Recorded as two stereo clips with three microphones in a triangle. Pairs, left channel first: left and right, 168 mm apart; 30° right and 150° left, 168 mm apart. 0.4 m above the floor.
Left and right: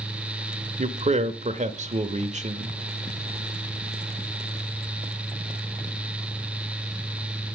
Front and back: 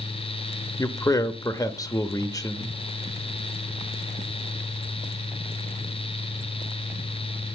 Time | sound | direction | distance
0.8 | a man speaking | 90° right | 1.0 m